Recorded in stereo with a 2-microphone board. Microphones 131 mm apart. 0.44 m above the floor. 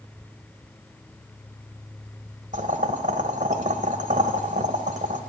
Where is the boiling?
65° right (ahead or behind), 1.3 m.